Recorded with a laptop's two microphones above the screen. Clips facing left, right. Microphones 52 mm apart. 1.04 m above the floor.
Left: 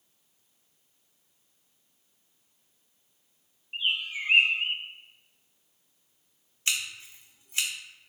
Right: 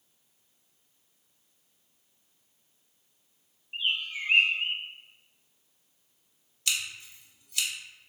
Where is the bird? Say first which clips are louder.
Left 1 dB; 10° left (ahead or behind), 0.9 m.